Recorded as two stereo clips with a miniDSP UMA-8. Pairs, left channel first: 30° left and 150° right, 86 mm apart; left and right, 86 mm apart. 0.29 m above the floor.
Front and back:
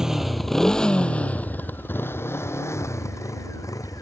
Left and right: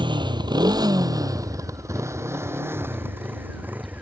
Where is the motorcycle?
65° right; by 4.0 s 20° right.